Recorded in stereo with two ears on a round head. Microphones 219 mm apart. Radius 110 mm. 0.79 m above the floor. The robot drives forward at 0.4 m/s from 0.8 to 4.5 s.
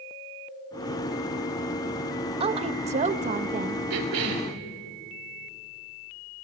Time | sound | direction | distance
2.4 | a woman speaking | 25° right (ahead or behind) | 0.7 m
3.9 | a cough | 70° right (ahead or behind) | 3 m